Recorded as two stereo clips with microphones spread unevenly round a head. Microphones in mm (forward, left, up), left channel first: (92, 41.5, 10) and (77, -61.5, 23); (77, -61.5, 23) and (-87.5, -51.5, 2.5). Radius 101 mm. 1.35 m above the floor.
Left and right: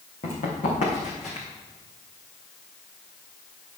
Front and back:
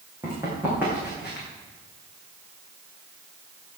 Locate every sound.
0.2 s running footsteps: 100° left, 4.5 m; by 1.5 s 85° left, 4.5 m